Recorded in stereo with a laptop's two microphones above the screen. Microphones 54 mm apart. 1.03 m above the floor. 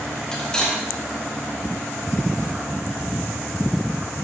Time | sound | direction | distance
0.3 | cutlery clinking | 15° left (ahead or behind) | 3.5 m